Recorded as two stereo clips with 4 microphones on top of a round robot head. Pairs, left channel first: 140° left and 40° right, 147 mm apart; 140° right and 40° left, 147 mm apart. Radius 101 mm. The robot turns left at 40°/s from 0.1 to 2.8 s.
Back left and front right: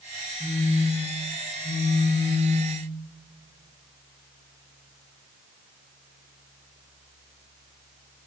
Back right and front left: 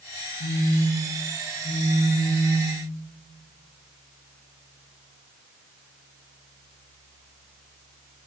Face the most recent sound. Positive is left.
turn(degrees=115)